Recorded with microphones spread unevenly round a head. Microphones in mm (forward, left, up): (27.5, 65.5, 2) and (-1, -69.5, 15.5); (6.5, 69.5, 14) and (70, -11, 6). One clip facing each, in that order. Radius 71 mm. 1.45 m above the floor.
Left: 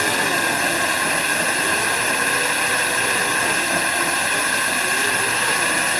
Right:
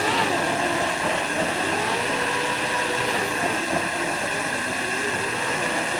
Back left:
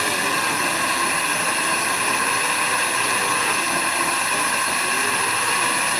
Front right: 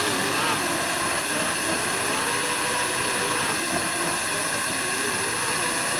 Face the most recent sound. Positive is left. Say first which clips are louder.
# even, back left 2 dB
turn(degrees=105)